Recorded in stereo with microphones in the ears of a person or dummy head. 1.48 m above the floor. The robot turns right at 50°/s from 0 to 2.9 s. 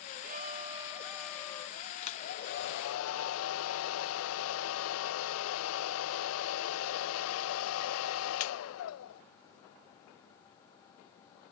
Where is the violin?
55° right; by 1.8 s 25° left.